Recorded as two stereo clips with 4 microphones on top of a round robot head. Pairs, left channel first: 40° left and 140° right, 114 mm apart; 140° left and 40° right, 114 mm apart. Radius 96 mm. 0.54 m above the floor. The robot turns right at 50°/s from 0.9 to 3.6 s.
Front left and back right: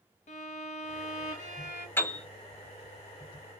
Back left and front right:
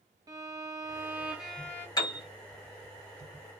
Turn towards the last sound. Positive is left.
turn(degrees=-175)